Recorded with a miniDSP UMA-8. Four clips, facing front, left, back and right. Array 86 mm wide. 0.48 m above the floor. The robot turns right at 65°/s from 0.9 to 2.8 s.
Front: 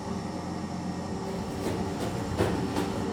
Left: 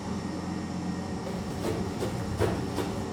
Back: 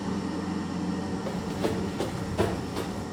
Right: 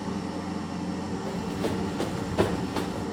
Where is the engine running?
150° right, 3.5 m; by 3.1 s 30° right, 3.5 m.